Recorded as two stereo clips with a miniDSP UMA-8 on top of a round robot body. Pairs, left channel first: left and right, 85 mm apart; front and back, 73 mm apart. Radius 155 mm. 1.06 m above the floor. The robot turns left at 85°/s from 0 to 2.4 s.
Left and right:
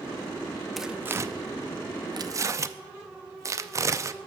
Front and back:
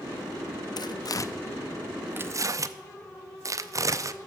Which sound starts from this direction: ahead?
Tearing paper, at 0.8 s.